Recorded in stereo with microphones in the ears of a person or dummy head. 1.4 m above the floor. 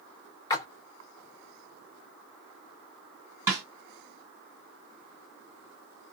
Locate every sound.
0.5 s a splash: 20° left (ahead or behind), 0.6 m
3.5 s a snare drum: 20° right (ahead or behind), 2 m